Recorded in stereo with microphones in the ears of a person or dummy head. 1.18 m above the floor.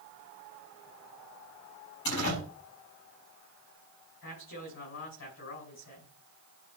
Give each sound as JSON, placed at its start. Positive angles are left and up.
{"t": 2.0, "sound": "a door slam", "side_deg": 75, "distance_m": 6.5}
{"t": 4.2, "sound": "a man speaking", "side_deg": 70, "distance_m": 5.0}